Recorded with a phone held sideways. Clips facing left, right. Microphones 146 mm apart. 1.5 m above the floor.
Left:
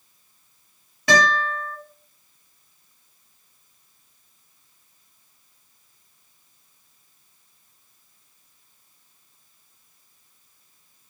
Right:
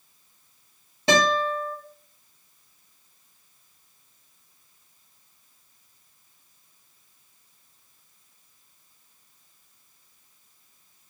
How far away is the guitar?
About 1.6 m.